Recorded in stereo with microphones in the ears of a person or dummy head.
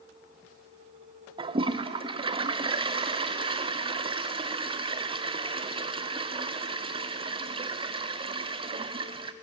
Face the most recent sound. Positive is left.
turn(degrees=-30)  # may be behind; listen again after turning